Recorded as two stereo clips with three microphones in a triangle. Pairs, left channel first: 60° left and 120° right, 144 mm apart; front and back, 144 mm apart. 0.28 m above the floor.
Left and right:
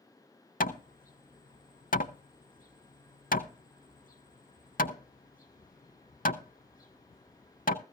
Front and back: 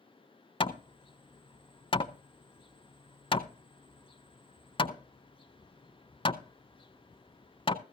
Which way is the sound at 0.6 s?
55° left.